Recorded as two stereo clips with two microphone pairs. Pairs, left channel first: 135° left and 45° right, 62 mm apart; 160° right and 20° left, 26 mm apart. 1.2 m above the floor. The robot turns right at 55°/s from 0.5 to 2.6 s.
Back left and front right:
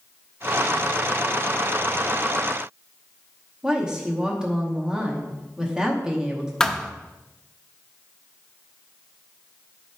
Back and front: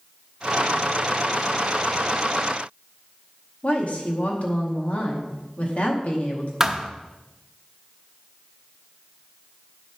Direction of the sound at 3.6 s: 120° right.